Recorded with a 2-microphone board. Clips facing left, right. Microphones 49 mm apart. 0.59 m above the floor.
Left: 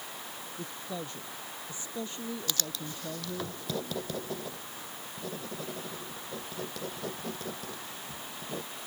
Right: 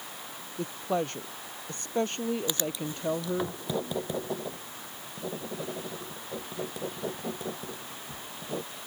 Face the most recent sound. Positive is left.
turn(degrees=-25)  # may be behind; listen again after turning